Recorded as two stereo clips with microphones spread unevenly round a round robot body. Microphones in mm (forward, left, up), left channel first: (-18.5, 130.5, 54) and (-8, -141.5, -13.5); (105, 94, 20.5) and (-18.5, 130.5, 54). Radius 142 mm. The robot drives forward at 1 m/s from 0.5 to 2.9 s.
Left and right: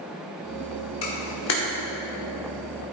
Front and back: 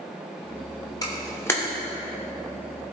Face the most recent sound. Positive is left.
turn(degrees=95)